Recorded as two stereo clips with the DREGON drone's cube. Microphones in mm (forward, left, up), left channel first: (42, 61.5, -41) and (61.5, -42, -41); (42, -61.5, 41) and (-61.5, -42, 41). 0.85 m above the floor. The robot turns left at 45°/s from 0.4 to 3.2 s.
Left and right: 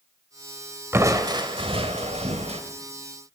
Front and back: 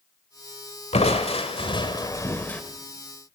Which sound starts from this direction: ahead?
Crushing, at 0.9 s.